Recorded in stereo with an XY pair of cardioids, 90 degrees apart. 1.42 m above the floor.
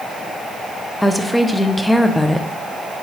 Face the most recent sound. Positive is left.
turn(degrees=5)